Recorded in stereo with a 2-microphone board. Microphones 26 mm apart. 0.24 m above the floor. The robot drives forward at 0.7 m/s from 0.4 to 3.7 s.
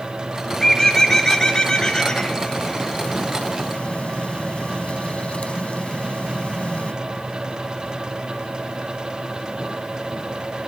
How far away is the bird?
About 2 m.